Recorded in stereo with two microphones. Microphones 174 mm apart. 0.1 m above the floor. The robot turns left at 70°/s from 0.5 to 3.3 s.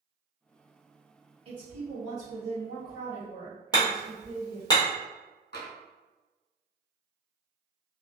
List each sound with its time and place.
1.4 s a woman speaking: 45° right, 1.7 m; by 4.7 s 175° right, 1.7 m
3.7 s hammering: 25° left (ahead or behind), 1.3 m
5.5 s tapping: 70° left (ahead or behind), 1.2 m